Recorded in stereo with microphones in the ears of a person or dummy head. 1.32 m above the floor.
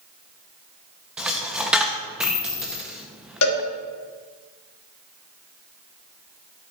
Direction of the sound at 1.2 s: 5° right (ahead or behind).